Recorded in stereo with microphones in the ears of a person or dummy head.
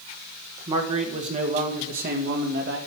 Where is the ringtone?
No ringtone in this recording.